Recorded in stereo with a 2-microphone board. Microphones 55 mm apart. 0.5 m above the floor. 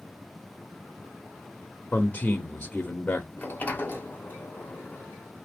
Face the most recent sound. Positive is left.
turn(degrees=35)  # may be behind; listen again after turning